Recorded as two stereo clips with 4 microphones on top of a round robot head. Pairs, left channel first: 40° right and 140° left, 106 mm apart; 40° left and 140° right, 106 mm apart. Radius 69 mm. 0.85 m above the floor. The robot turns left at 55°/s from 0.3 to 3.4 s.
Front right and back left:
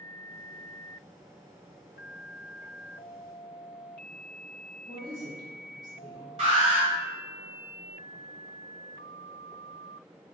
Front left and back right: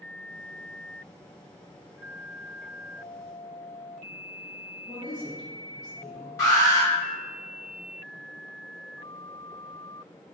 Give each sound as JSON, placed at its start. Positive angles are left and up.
{"t": 4.9, "sound": "a woman speaking", "azimuth_deg": 90, "distance_m": 1.7}
{"t": 6.4, "sound": "an alarm", "azimuth_deg": 105, "distance_m": 1.8}